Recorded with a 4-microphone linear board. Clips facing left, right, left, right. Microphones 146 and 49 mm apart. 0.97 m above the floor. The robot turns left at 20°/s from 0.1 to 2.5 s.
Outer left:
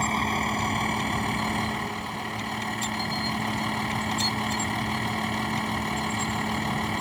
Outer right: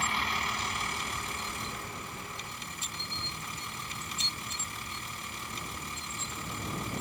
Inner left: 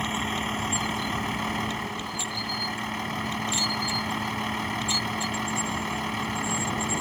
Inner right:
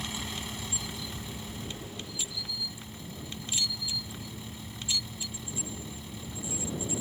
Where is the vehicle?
135° left; by 7.0 s 85° left.